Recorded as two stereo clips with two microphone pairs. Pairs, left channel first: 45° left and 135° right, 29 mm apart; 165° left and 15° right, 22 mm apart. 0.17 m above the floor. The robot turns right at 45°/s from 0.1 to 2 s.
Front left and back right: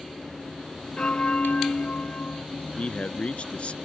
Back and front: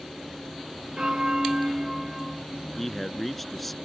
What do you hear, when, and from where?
1.0 s a bell: 10° left; by 2.5 s 60° left
2.8 s a man speaking: 80° left